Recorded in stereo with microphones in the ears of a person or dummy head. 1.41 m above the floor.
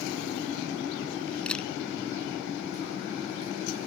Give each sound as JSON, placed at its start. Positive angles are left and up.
{"t": 1.5, "sound": "a camera shutter", "side_deg": 0}